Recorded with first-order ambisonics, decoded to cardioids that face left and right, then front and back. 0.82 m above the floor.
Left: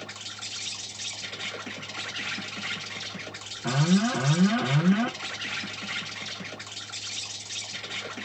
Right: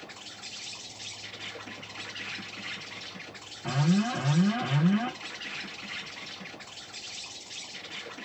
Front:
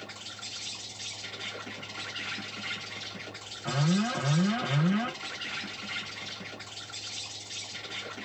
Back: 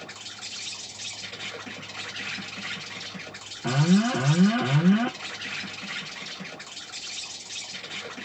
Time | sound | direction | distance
0.0 | an insect | 115° left | 1.1 m
3.6 | an alarm | 160° left | 1.1 m